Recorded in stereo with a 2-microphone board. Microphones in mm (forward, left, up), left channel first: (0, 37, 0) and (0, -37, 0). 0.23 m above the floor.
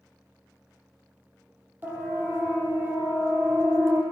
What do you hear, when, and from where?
1.8 s a siren: 25° right (ahead or behind), 7.5 m; by 4.0 s 35° right (ahead or behind), 6.5 m